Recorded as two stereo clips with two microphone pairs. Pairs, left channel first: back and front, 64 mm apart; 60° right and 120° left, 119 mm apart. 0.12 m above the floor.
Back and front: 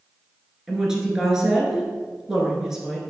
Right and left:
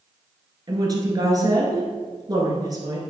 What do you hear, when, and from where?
0.7 s a woman speaking: 75° left, 1.7 m